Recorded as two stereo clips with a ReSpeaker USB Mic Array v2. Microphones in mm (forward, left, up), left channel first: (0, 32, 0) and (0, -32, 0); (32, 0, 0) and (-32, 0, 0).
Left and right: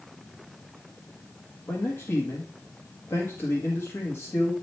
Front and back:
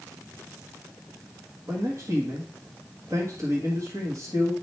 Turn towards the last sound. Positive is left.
turn(degrees=145)